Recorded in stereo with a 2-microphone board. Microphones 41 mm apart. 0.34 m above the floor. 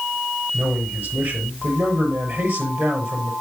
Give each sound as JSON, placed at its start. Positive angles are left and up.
{"t": 0.5, "sound": "a man speaking", "side_deg": -65, "distance_m": 7.0}